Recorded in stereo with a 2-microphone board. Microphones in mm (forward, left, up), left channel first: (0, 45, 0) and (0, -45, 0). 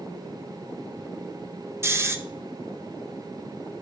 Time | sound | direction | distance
1.8 | snoring | 30° right (ahead or behind) | 0.6 m